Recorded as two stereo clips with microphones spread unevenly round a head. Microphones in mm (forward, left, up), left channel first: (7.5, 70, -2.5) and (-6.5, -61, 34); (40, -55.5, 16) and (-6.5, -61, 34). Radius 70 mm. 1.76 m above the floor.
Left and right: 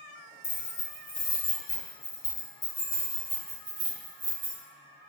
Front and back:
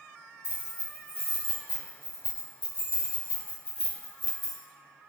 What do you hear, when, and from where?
0.4 s keys jangling: 95° left, 1.4 m; by 4.6 s 65° right, 1.4 m